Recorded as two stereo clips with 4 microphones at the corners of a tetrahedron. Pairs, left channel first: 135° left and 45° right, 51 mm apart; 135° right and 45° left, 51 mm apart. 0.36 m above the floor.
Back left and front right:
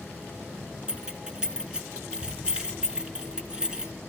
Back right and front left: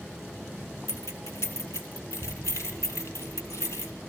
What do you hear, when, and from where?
0.9 s keys jangling: 120° right, 2.5 m